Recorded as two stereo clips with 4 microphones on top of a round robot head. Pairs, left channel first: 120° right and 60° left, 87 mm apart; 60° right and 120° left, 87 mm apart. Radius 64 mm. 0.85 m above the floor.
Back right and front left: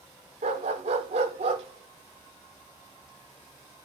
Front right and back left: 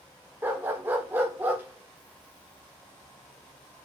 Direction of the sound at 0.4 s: 50° left.